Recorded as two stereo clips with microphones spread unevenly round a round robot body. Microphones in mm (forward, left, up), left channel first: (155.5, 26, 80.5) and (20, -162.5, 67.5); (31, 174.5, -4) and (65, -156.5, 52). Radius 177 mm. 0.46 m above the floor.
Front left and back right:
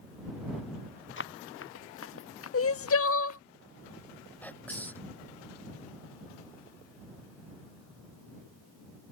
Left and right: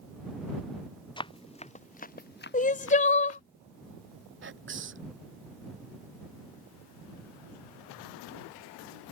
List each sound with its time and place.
1.2 s running footsteps: 20° left; by 3.4 s 50° left
2.5 s crying: 35° left
4.4 s whispering: 30° right